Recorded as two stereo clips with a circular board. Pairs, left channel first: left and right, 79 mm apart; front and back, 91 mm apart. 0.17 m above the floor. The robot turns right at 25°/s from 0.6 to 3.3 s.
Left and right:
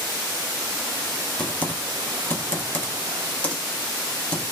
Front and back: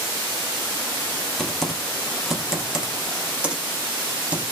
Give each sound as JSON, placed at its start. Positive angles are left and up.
{"t": 1.4, "sound": "typing on a keyboard", "azimuth_deg": 80, "distance_m": 0.6}